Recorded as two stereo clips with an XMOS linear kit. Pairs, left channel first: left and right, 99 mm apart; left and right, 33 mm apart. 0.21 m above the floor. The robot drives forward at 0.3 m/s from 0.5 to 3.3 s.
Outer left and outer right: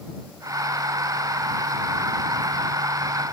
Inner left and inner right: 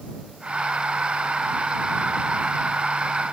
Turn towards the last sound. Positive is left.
No sound to turn to.